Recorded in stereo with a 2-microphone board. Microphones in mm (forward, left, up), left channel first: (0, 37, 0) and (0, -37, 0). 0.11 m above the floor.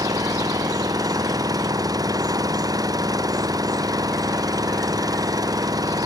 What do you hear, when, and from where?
0.0 s an engine running: 55° right (ahead or behind)